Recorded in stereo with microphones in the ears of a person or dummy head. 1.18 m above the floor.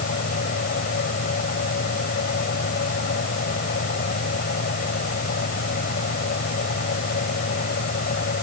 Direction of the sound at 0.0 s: 50° left (ahead or behind).